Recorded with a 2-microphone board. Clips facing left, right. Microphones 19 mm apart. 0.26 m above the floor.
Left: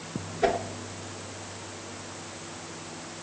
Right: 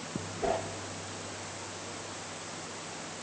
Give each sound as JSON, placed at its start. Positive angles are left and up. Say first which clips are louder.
{"t": 0.4, "sound": "a whoosh", "louder": "left 6 dB", "side_deg": 70, "distance_m": 2.5}